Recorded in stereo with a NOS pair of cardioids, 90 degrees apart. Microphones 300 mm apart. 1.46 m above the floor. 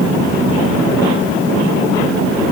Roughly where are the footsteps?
No footsteps in this recording.